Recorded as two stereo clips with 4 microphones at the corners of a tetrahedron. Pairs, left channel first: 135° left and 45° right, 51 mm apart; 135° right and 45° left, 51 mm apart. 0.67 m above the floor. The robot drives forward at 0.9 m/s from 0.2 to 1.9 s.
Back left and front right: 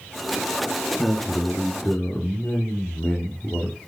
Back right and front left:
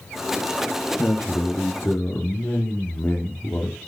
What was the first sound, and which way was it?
A man speaking, 170° right.